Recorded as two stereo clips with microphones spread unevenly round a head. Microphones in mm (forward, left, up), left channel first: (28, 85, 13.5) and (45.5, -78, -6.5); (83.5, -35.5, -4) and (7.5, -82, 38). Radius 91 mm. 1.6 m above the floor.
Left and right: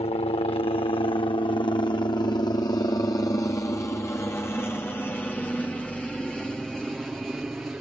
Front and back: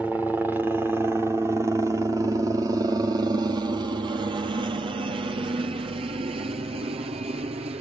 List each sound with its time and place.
0.0 s a helicopter: 105° left; by 7.8 s 165° right